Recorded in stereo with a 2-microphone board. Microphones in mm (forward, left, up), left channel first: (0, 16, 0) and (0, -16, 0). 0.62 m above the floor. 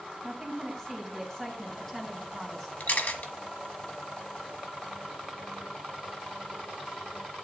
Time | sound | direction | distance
0.2 | a woman speaking | 10° left (ahead or behind) | 5 m
2.8 | a camera shutter | 80° left | 1.7 m